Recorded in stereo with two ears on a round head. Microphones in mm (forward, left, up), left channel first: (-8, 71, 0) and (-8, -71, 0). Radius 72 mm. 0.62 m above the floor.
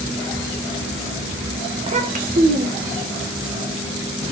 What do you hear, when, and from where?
1.8 s a child speaking: 30° right (ahead or behind), 0.6 m; by 3.0 s 70° right (ahead or behind), 1.1 m